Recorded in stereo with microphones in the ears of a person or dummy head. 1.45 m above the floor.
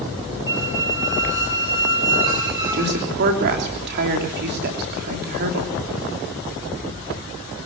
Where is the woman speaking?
55° right (ahead or behind), 3 m.